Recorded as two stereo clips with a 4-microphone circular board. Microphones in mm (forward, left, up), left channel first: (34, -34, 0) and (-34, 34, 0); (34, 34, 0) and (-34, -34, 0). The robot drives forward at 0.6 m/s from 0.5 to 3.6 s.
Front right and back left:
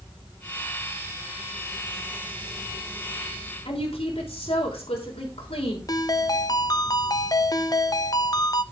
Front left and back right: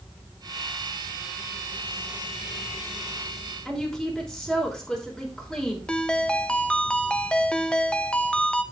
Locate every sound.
3.6 s a woman speaking: 40° right, 3 m
5.9 s a ringtone: 30° right, 0.7 m